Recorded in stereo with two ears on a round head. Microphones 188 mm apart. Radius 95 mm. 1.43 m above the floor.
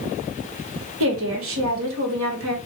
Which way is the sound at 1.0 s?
75° right (ahead or behind).